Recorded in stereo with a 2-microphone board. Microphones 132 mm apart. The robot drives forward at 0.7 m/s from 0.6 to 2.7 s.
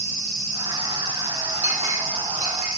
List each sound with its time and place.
1.6 s a clink: 70° right (ahead or behind), 4 m; by 2.7 s 65° right (ahead or behind), 4.5 m